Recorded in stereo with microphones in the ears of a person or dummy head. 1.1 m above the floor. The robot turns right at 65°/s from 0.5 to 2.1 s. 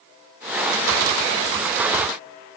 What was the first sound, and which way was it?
Only background noise.